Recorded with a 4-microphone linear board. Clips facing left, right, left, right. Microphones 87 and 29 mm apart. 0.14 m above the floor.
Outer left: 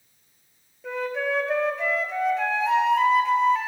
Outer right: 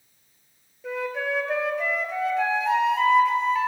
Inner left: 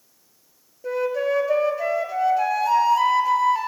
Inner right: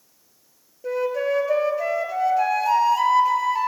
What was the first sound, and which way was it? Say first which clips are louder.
A flute: outer left 1 dB, even; centre (ahead or behind).